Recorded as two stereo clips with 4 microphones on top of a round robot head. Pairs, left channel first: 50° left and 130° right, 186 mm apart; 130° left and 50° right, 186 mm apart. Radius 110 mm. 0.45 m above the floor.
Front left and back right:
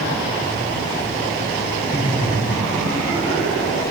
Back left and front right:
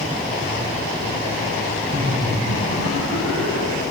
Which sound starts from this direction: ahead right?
Laughter, at 1.9 s.